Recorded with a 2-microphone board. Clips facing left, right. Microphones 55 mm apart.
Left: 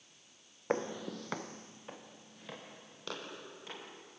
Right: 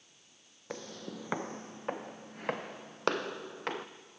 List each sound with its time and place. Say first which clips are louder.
0.7 s footsteps: left 7 dB; 40° left (ahead or behind), 0.6 m; by 3.9 s 70° right (ahead or behind), 2.5 m